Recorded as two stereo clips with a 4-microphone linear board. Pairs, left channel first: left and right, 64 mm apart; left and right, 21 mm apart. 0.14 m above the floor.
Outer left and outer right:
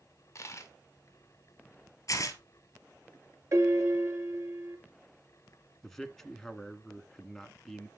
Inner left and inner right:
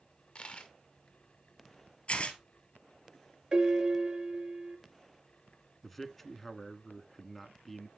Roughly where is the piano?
Right.